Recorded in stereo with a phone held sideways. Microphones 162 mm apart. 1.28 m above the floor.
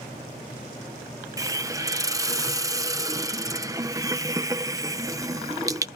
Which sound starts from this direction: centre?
A hiss, at 1.4 s.